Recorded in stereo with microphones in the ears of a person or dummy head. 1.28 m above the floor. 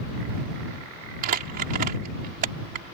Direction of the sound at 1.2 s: 45° right (ahead or behind).